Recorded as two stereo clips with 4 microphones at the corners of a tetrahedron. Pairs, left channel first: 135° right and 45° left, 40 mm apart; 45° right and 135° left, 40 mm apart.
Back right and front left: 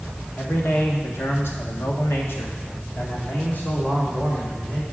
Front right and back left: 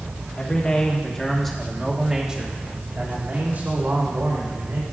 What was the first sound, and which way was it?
A man speaking, 100° right.